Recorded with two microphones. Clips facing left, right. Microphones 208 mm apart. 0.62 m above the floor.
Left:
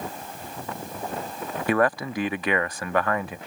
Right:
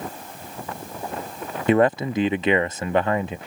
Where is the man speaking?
25° right (ahead or behind).